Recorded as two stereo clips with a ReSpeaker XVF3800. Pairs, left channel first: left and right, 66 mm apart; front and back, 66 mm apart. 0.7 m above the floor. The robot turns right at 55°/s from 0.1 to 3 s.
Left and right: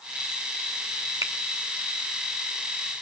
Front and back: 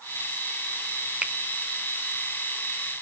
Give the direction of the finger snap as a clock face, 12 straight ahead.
4 o'clock.